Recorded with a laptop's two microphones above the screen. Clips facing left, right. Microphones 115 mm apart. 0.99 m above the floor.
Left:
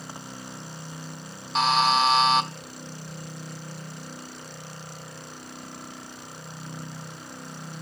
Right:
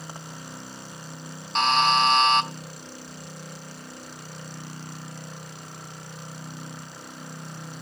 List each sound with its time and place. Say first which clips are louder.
1.6 s a buzzer: even; 5° left (ahead or behind), 0.7 m